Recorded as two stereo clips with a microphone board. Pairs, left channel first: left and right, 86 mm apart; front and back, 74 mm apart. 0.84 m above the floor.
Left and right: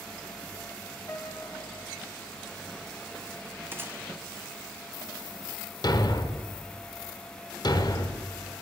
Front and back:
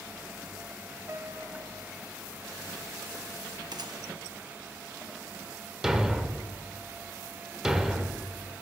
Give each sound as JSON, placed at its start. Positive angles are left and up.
{"t": 1.1, "sound": "a piano", "azimuth_deg": 140, "distance_m": 0.8}
{"t": 3.7, "sound": "a gunshot", "azimuth_deg": -155, "distance_m": 0.7}
{"t": 5.8, "sound": "a thud", "azimuth_deg": 100, "distance_m": 0.7}